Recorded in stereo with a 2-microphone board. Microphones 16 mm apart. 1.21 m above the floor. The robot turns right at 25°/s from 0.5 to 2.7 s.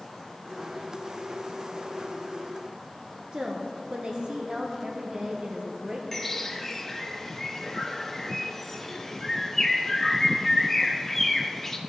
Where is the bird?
10° left (ahead or behind), 0.9 m.